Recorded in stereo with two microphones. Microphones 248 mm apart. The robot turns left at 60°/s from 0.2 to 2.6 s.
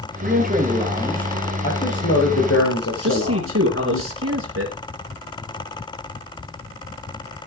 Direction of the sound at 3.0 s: 55° right (ahead or behind).